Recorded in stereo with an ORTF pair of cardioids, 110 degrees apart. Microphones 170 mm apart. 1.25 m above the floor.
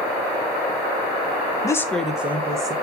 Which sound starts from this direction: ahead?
A woman speaking, at 1.6 s.